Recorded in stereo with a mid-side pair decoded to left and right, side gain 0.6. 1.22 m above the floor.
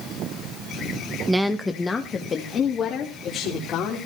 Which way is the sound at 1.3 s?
10° right.